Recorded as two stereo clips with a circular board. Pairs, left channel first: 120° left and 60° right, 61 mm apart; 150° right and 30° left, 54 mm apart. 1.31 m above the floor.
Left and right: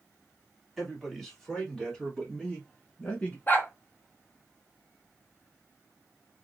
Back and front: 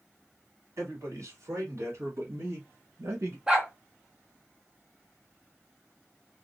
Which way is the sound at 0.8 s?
25° left.